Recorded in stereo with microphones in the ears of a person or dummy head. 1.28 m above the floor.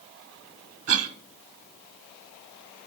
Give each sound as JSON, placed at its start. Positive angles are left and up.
{"t": 0.9, "sound": "a cough", "side_deg": -70, "distance_m": 0.9}